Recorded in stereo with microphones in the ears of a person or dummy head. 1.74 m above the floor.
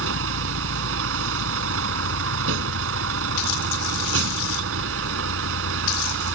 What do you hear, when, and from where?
0.0 s a vehicle: 75° right (ahead or behind)